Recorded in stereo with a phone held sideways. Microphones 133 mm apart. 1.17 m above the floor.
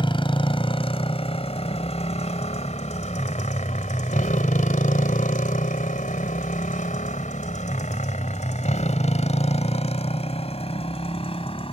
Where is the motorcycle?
40° left (ahead or behind); by 11.8 s 45° left (ahead or behind).